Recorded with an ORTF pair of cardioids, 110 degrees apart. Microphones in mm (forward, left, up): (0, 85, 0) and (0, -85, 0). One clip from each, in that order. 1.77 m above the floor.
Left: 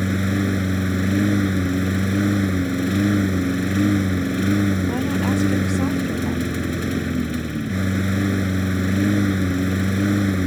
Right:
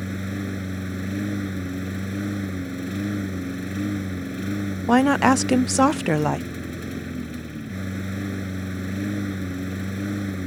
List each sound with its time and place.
0.0 s a lawn mower: 50° left
4.9 s a woman speaking: 60° right